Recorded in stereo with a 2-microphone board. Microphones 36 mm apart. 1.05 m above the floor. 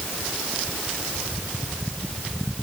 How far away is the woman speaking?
I don't hear a woman speaking.